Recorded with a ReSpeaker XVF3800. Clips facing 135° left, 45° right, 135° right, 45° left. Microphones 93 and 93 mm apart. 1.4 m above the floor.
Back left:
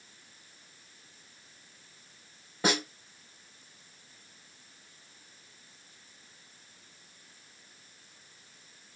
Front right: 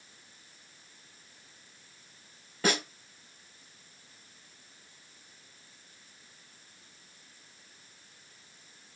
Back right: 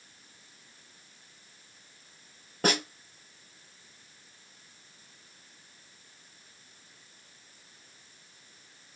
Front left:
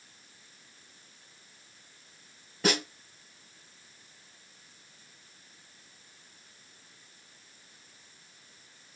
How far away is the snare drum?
About 2.5 m.